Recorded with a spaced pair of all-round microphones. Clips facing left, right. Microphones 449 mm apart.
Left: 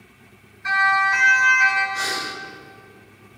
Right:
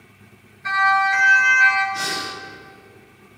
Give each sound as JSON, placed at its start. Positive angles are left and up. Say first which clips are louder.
{"t": 0.6, "sound": "a siren", "louder": "right 3 dB", "side_deg": 10, "distance_m": 8.5}
{"t": 1.9, "sound": "breathing", "louder": "right 1 dB", "side_deg": -45, "distance_m": 1.8}